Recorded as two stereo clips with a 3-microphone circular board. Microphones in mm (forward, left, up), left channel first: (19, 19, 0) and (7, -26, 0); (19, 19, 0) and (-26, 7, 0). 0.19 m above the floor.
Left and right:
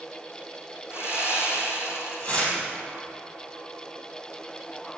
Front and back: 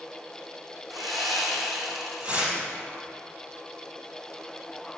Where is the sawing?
105° left, 2.5 m.